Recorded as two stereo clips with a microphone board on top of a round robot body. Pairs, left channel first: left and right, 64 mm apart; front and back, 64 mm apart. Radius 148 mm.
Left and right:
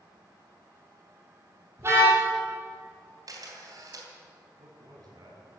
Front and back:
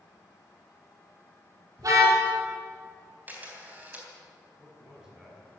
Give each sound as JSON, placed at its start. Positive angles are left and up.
{"t": 1.8, "sound": "a car horn", "azimuth_deg": -145, "distance_m": 6.5}
{"t": 3.3, "sound": "a camera shutter", "azimuth_deg": -115, "distance_m": 3.5}
{"t": 4.6, "sound": "a man speaking", "azimuth_deg": -100, "distance_m": 5.5}